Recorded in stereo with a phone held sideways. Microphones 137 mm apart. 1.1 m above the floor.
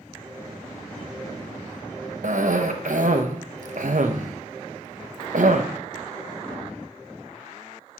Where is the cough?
70° right (ahead or behind), 0.8 m.